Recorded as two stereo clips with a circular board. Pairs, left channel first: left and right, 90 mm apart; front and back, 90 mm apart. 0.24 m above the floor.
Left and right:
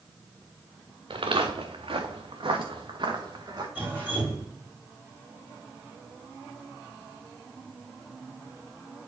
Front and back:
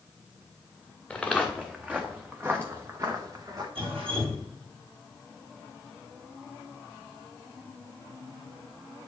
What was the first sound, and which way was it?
Footsteps, 80° right.